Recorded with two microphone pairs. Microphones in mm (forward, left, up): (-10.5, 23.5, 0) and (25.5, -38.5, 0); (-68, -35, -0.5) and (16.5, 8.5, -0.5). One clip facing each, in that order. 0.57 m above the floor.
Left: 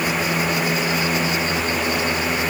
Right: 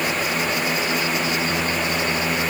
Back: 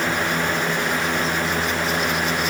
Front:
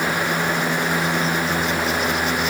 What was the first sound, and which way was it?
Only background noise.